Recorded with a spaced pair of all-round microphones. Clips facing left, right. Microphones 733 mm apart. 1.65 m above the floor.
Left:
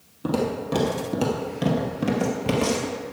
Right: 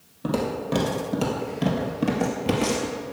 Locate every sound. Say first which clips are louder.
0.2 s footsteps: left 1 dB; 10° right (ahead or behind), 2 m; by 3.0 s 10° left (ahead or behind), 1.7 m